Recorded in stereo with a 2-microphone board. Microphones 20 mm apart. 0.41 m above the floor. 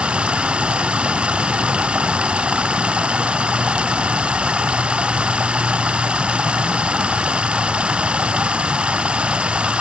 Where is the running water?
60° right (ahead or behind).